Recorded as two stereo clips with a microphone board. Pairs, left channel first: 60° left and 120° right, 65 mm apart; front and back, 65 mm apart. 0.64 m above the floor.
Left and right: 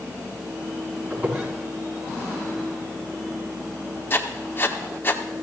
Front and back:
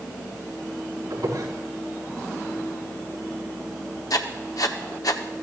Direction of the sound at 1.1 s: 175° right.